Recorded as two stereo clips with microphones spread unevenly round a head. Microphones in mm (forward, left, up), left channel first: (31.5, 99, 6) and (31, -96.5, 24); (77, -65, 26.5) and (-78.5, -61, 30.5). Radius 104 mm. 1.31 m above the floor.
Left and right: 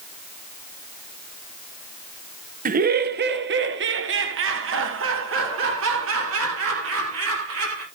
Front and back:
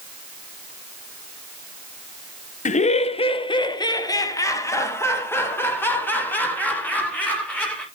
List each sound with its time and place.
2.6 s laughter: 40° right, 0.8 m; by 7.8 s 85° right, 3 m